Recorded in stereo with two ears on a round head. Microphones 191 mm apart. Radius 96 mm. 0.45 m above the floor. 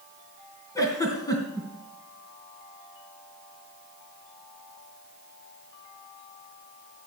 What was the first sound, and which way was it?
A giggle, 15° left (ahead or behind).